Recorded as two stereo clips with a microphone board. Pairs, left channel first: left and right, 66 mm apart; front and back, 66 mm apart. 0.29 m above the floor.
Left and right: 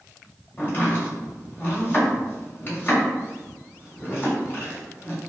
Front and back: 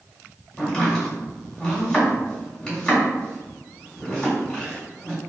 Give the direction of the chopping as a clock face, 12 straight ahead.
9 o'clock.